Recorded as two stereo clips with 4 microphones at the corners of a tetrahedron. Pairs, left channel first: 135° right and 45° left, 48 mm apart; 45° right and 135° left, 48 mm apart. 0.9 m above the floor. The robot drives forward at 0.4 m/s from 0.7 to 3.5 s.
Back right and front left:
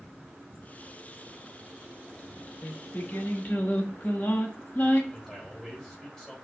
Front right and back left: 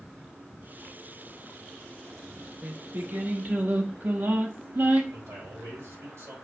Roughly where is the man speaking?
Behind left.